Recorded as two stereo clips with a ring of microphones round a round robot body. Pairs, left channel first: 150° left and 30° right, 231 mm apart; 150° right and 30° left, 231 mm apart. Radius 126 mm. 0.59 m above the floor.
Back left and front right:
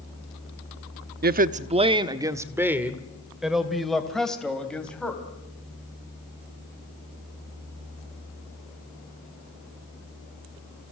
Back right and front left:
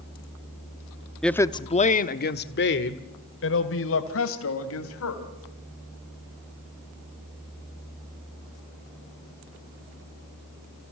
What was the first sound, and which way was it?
A woman speaking, 60° right.